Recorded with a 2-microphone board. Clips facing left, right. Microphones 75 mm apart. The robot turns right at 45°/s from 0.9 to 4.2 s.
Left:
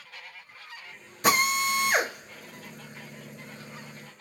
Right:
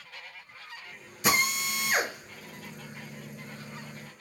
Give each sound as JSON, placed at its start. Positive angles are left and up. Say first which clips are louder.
{"t": 1.2, "sound": "a drill", "louder": "left 4 dB", "side_deg": 45, "distance_m": 1.3}